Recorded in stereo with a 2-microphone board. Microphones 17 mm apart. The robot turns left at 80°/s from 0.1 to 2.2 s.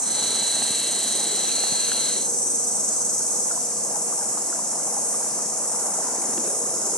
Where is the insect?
125° right, 1.0 m; by 7.0 s 70° left, 1.0 m.